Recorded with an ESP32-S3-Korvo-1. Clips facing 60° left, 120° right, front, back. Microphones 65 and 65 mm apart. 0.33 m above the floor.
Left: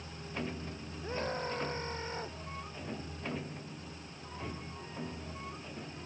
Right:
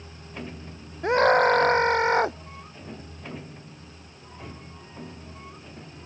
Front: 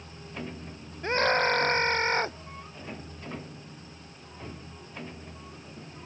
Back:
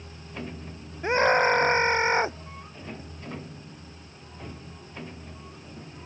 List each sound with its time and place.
1.0 s a scream: 105° right